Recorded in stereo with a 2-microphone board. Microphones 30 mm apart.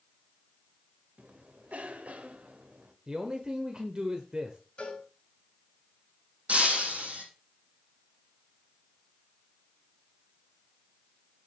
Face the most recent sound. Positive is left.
turn(degrees=-50)  # may be behind; listen again after turning